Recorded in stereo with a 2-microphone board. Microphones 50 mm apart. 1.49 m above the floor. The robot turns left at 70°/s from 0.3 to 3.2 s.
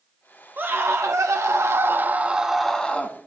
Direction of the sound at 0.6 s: 40° right.